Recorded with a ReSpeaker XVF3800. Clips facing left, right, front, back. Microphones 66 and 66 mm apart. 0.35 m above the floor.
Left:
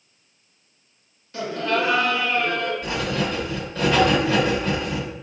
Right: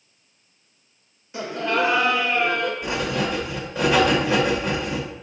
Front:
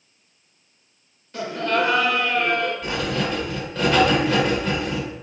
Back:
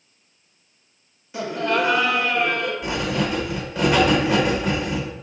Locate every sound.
1.3 s laughter: 115° right, 0.9 m
2.8 s writing: 130° right, 0.9 m